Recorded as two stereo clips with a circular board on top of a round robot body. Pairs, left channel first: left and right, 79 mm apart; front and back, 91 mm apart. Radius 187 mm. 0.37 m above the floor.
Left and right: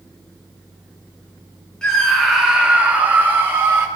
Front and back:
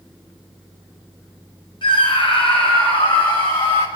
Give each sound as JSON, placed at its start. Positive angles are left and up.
{"t": 1.8, "sound": "a scream", "azimuth_deg": 10, "distance_m": 3.0}